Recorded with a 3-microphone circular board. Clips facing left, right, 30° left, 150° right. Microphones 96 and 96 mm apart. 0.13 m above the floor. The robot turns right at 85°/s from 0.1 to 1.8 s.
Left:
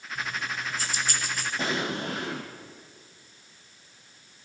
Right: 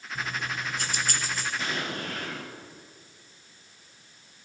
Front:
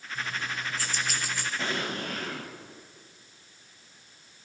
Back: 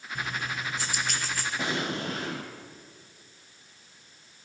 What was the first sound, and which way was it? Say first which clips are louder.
Keys jangling: even, back 1 dB; 140° right.